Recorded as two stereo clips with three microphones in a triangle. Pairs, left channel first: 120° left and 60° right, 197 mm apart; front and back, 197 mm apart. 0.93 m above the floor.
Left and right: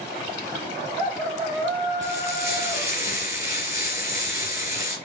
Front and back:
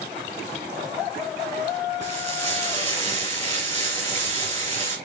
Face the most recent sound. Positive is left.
turn(degrees=75)